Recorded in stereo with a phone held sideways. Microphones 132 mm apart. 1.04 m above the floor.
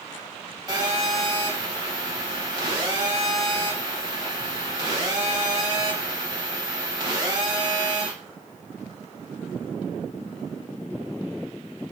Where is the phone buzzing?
30° right (ahead or behind), 1.2 m.